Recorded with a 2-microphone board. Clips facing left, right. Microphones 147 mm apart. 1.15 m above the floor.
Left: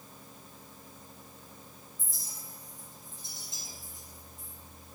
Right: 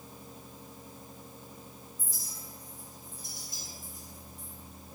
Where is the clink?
25° left (ahead or behind), 4.5 m.